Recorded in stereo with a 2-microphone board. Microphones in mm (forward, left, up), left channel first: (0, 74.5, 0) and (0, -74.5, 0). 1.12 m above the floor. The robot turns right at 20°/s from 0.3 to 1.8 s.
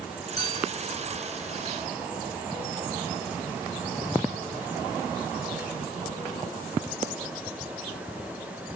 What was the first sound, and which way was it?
A clink, 25° left (ahead or behind).